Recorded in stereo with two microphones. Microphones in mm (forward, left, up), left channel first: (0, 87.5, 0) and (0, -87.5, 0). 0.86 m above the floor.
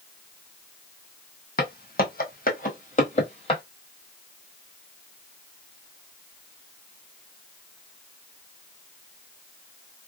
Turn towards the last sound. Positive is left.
turn(degrees=30)  # may be behind; listen again after turning